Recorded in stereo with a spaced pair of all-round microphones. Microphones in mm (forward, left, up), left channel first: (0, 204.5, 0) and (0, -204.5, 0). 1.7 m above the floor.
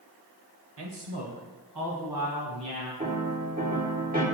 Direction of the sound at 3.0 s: 20° right (ahead or behind).